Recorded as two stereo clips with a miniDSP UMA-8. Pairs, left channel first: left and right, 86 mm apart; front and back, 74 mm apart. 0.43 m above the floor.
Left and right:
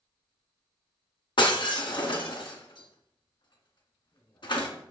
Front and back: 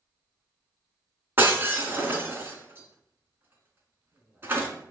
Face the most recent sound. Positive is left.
turn(degrees=120)